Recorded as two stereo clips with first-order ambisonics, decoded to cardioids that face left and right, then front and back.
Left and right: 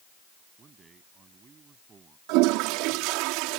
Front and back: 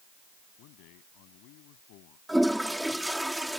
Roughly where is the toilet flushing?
Right.